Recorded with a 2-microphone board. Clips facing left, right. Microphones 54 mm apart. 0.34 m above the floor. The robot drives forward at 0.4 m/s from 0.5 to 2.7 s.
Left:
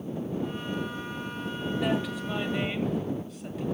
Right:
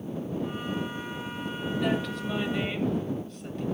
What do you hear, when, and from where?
1.8 s a woman speaking: 5° left (ahead or behind), 1.6 m